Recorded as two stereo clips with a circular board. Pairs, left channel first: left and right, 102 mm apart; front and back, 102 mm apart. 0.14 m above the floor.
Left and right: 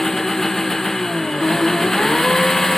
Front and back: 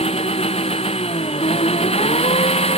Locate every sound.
0.0 s an engine running: 5° left